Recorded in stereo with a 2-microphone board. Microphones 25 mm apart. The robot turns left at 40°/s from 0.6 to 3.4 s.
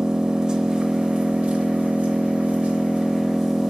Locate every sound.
0.0 s an engine running: 35° right, 1.6 m; by 3.7 s 150° right, 1.6 m